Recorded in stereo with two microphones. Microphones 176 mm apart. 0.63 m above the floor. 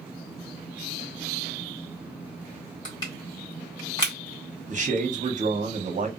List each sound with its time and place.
2.9 s crushing: 25° left (ahead or behind), 1.5 m
4.7 s a man speaking: 45° right (ahead or behind), 0.9 m